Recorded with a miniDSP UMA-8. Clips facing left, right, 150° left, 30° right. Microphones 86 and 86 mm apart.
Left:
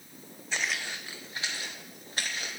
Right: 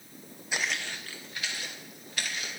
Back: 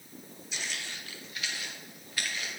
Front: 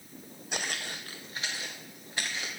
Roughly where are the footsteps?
Ahead.